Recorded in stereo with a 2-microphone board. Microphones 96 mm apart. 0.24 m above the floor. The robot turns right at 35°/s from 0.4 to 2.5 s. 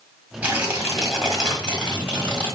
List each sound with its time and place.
0.4 s tearing paper: 30° right, 1.8 m; by 2.6 s 45° left, 1.8 m